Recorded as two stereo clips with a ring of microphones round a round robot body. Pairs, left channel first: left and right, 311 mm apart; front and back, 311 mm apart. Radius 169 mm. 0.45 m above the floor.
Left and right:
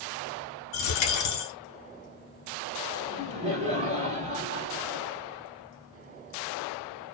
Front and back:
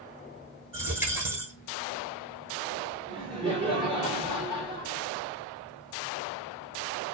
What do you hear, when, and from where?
0.7 s a dropped coin: 95° left, 1.0 m
3.1 s laughter: 130° right, 1.4 m